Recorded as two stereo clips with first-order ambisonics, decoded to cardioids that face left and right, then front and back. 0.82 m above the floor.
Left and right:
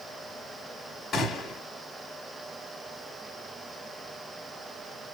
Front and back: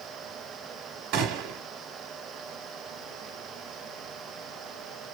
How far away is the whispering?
No whispering in this recording.